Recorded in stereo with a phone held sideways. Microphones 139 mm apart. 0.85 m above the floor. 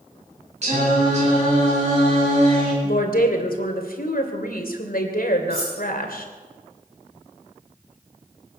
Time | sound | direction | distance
0.6 | singing | 50° right (ahead or behind) | 7 m
2.8 | a woman speaking | 80° left | 2.5 m
5.5 | cutlery clinking | 45° right (ahead or behind) | 8.5 m